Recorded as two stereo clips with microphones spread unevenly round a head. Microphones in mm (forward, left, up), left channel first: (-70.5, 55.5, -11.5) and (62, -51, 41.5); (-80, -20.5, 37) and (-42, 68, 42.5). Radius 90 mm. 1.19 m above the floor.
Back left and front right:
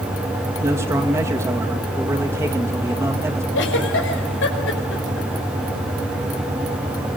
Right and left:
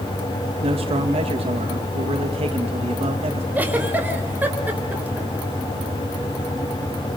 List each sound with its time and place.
0.6 s a man speaking: 40° left, 2 m
3.5 s a giggle: 140° left, 5 m